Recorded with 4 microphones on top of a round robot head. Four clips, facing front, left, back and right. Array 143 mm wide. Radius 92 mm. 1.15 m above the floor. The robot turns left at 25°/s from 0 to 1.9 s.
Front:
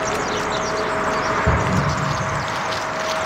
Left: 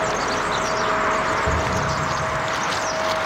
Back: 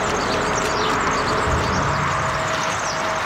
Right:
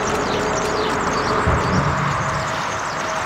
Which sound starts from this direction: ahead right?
An explosion, at 1.5 s.